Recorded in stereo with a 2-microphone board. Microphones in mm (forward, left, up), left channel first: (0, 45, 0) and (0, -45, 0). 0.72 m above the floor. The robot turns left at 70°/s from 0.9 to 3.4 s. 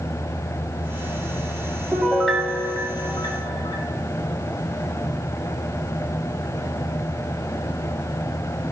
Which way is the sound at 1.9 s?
160° right.